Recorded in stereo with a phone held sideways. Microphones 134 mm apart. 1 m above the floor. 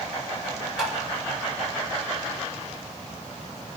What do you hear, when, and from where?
0.8 s tapping: centre (ahead or behind), 1.9 m